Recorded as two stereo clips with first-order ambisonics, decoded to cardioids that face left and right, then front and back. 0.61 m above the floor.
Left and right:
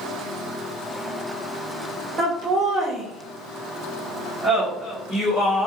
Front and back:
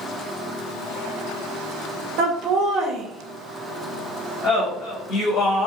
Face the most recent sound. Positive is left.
turn(degrees=10)